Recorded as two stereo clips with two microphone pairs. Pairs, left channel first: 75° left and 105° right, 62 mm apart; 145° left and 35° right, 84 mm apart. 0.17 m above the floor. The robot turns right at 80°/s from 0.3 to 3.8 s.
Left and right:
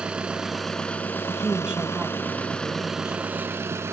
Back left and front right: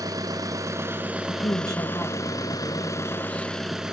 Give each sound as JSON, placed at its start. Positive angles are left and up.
{"t": 0.0, "sound": "an engine running", "azimuth_deg": -35, "distance_m": 1.2}
{"t": 1.3, "sound": "a woman speaking", "azimuth_deg": 150, "distance_m": 4.5}